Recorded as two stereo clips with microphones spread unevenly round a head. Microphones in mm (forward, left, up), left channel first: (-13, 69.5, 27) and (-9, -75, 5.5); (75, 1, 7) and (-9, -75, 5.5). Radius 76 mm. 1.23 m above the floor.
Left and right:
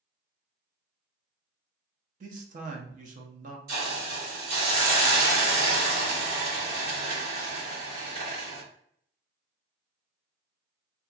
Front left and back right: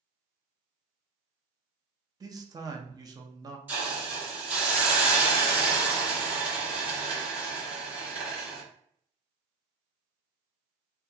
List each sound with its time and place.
2.2 s a man speaking: 85° right, 0.6 m
3.7 s a hiss: 65° right, 1.5 m